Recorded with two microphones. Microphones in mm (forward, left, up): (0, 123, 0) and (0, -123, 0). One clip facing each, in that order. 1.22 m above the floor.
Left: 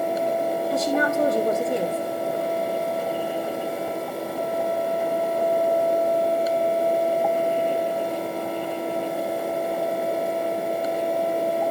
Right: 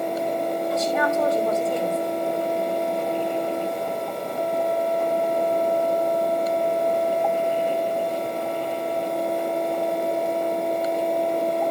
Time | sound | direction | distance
0.7 | a woman speaking | 30° left (ahead or behind) | 3.5 m